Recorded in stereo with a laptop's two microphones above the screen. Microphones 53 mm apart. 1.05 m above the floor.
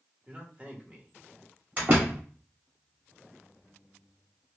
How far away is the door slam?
About 2.5 m.